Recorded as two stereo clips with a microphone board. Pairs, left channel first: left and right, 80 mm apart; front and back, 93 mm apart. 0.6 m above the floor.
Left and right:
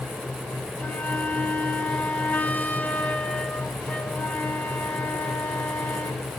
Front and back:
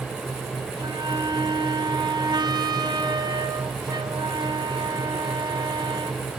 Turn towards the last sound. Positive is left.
turn(degrees=155)